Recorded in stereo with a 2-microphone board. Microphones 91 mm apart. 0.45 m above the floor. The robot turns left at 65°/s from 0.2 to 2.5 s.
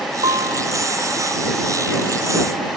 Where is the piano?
85° right; by 0.7 s 60° right (ahead or behind).